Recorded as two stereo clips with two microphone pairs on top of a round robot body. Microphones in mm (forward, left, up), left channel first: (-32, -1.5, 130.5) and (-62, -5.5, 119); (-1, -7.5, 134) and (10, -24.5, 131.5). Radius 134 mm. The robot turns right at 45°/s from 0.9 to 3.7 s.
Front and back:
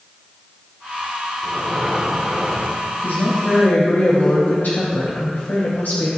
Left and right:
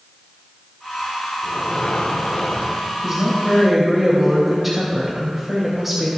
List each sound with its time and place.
1.4 s breathing: 115° left, 1.1 m; by 2.9 s straight behind, 1.1 m
3.0 s a woman speaking: 10° right, 2.5 m; by 6.1 s 20° left, 2.5 m